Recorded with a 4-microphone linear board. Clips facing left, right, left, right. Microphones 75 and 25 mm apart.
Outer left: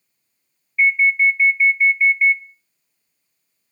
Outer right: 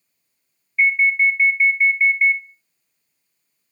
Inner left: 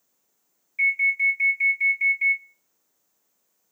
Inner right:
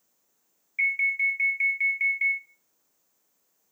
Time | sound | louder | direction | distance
0.8 | an alarm | outer left 1 dB, inner left 3 dB | 30° right (ahead or behind) | 1.2 m